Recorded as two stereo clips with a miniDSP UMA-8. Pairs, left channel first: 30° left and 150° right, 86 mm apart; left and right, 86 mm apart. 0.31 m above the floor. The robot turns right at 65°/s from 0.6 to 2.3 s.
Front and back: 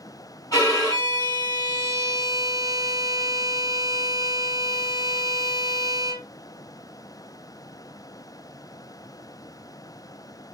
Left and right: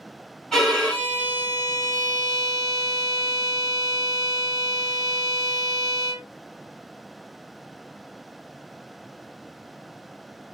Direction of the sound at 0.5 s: 5° left.